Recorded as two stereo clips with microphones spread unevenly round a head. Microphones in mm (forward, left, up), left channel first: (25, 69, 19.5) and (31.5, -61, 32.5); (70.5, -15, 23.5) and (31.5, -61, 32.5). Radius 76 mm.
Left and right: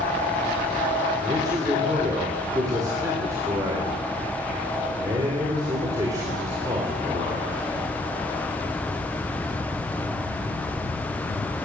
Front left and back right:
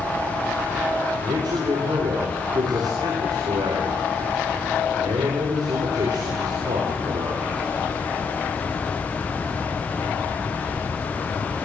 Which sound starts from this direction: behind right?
A man speaking, at 1.2 s.